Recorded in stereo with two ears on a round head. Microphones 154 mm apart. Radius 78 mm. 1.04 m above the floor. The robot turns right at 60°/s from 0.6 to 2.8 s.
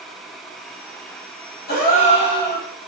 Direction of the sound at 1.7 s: 115° left.